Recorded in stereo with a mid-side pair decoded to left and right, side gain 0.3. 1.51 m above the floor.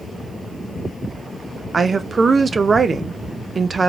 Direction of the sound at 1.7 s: 50° right.